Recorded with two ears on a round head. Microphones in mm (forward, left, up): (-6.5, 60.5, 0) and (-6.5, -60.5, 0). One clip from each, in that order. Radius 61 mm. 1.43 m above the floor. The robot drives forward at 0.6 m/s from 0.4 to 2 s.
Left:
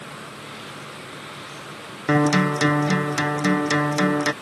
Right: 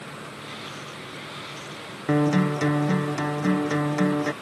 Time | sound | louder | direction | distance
2.1 | a guitar | left 4 dB | 55° left (ahead or behind) | ?